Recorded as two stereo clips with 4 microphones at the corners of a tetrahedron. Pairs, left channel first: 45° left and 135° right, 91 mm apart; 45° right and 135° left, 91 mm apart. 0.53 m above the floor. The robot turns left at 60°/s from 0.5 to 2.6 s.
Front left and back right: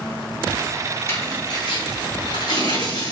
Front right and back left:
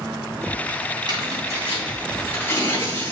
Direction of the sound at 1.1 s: 105° left.